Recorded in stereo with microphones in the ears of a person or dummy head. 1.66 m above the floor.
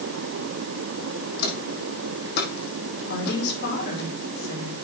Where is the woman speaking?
65° left (ahead or behind), 5 m.